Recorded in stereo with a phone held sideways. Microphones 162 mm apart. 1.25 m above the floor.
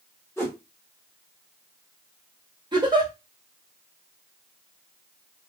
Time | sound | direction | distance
0.4 | a whoosh | 15° left (ahead or behind) | 0.9 m
2.7 | a giggle | 25° right (ahead or behind) | 1.0 m